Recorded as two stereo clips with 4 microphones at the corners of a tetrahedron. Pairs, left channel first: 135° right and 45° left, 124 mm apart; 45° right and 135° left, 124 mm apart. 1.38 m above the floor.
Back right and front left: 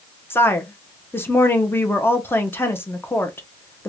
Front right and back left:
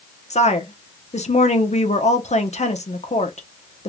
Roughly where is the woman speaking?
Ahead right.